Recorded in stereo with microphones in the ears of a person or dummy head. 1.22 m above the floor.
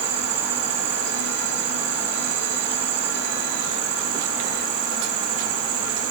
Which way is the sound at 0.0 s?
65° right (ahead or behind).